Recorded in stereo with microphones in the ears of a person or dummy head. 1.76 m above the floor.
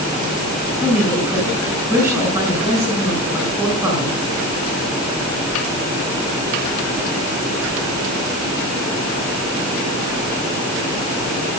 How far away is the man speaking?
About 8 m.